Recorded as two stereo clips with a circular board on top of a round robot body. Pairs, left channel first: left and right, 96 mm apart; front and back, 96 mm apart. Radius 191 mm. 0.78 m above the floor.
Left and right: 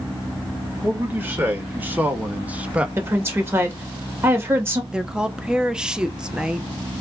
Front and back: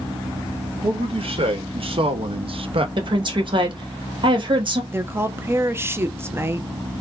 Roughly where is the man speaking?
Behind.